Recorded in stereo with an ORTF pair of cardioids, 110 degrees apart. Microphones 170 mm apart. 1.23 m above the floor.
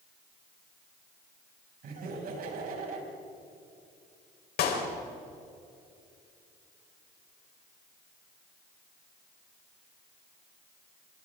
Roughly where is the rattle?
No rattle in this recording.